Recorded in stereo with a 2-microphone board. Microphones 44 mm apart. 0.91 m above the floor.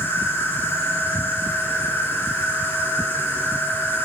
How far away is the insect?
About 4 m.